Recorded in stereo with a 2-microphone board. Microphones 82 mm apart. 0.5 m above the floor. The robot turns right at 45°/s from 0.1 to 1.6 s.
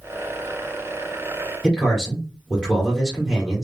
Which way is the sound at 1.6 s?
10° right (ahead or behind).